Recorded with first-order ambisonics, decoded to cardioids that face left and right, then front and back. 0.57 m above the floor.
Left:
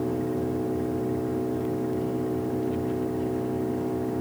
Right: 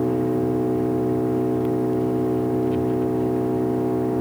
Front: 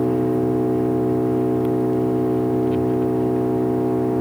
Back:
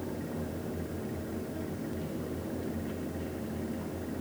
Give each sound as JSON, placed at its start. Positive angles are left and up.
{"t": 0.0, "sound": "an engine running", "azimuth_deg": -20}